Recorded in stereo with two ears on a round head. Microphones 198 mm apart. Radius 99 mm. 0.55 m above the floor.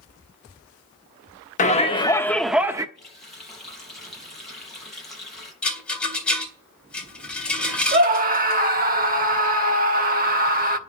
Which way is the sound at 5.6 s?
5° left (ahead or behind).